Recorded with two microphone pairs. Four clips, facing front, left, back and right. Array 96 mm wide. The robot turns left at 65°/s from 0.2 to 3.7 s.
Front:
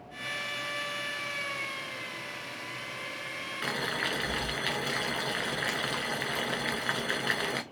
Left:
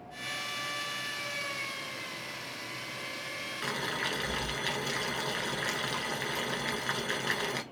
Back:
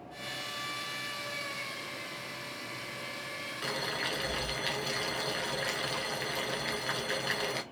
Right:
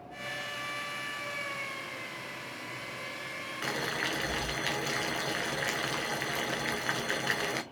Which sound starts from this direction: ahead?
Boiling, at 3.6 s.